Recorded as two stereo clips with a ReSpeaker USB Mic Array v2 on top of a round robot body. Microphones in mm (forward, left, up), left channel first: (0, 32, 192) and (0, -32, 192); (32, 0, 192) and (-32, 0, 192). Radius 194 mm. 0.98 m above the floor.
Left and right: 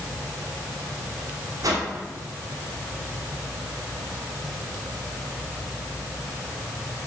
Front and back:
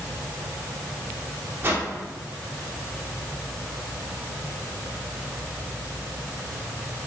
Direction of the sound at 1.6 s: 120° right.